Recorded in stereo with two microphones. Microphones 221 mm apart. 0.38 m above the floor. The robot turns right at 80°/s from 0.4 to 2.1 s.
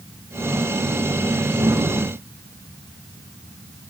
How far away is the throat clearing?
No throat clearing in this recording.